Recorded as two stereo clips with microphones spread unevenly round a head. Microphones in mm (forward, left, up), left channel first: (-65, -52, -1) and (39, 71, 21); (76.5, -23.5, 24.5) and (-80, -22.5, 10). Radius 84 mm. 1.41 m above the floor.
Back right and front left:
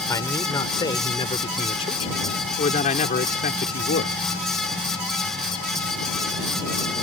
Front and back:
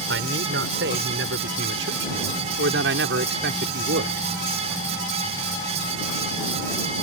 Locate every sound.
0.1 s a man speaking: 155° left; by 4.2 s 160° right